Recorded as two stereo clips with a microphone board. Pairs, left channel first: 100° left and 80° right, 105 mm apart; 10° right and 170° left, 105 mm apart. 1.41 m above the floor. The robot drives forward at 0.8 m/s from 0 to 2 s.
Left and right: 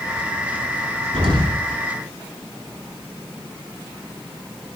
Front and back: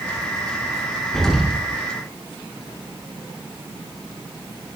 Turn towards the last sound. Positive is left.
turn(degrees=-100)